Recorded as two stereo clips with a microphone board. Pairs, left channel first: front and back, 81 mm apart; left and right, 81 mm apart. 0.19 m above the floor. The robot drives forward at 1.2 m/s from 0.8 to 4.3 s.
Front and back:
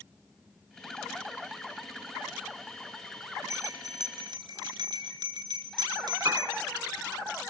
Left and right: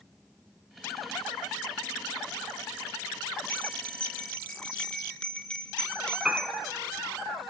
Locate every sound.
3.5 s a bell: 155° left, 1.2 m; by 6.5 s 170° left, 1.9 m
6.2 s a piano: 170° right, 1.2 m